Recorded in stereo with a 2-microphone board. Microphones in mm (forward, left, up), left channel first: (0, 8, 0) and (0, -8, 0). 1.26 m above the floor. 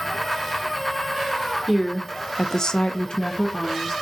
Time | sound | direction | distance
1.7 | a woman speaking | 5° left (ahead or behind) | 0.9 m